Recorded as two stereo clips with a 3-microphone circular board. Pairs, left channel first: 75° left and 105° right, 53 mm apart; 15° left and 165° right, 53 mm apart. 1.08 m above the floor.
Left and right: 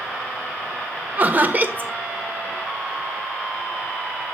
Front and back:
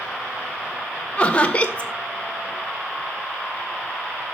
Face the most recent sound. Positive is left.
turn(degrees=-50)